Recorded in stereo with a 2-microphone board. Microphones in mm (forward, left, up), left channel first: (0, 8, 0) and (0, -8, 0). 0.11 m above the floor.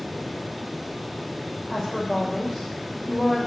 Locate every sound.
1.7 s a woman speaking: 30° left (ahead or behind), 3.5 m